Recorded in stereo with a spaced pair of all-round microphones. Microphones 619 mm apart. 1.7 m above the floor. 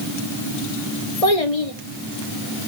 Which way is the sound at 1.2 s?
65° left (ahead or behind).